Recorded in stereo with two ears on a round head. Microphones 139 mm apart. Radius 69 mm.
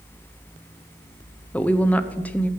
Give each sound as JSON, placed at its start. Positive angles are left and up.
{"t": 1.5, "sound": "a woman speaking", "side_deg": 10, "distance_m": 0.7}